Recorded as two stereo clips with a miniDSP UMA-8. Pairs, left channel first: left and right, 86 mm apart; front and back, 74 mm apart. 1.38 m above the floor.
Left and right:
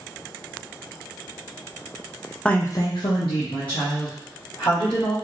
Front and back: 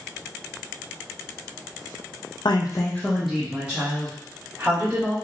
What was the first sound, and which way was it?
A woman speaking, 10° left.